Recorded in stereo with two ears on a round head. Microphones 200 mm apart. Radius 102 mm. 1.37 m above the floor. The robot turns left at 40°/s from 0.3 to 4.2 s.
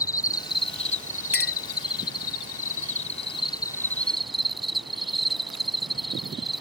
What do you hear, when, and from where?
0.0 s an insect: 155° left; by 6.6 s straight ahead
1.3 s a clink: 50° left (ahead or behind); by 1.5 s 60° left (ahead or behind)